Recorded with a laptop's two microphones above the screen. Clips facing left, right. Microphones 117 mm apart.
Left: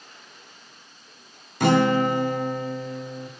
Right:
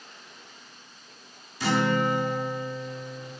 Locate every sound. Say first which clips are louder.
1.6 s a guitar: left 5 dB; 60° left (ahead or behind), 0.8 m